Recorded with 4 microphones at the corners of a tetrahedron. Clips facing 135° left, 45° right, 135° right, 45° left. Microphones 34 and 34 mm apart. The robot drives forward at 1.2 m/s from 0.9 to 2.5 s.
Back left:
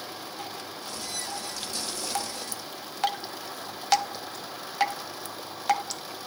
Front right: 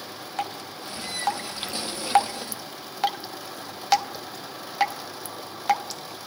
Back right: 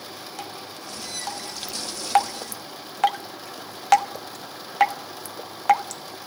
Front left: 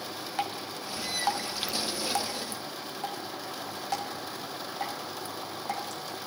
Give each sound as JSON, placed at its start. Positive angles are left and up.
{"t": 0.4, "sound": "dripping", "azimuth_deg": -20, "distance_m": 1.6}